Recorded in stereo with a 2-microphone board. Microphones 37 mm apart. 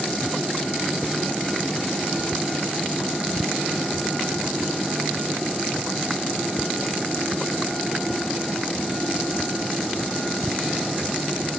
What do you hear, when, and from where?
Only background noise.